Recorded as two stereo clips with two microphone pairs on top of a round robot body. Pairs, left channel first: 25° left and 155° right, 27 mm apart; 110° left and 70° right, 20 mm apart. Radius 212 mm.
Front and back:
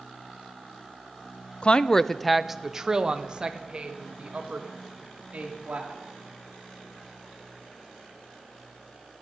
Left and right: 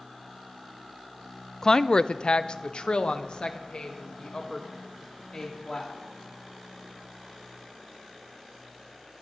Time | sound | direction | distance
1.6 | a woman speaking | 45° left | 0.6 m